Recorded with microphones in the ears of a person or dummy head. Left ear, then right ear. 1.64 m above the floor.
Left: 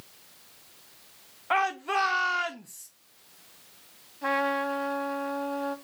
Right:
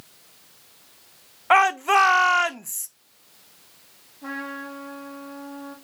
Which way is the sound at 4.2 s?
35° left (ahead or behind).